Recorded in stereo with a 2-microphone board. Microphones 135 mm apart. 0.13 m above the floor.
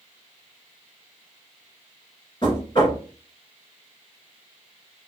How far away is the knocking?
About 1.6 m.